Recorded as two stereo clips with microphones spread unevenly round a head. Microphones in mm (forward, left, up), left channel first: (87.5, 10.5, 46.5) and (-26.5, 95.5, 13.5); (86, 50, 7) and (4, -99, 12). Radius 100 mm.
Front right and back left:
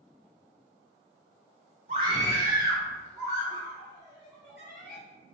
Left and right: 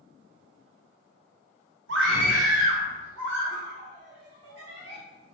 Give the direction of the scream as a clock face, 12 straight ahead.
5 o'clock.